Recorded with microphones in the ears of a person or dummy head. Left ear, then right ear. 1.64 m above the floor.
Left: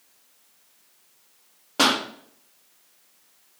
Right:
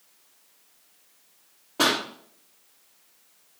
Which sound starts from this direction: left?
A pop, at 1.8 s.